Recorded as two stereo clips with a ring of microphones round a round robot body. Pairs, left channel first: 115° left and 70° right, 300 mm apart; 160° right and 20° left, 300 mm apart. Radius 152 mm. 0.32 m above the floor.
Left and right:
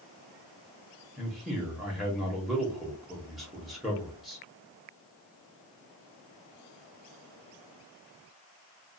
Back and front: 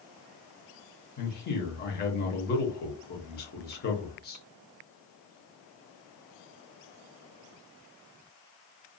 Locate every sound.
1.2 s a man speaking: 155° right, 1.0 m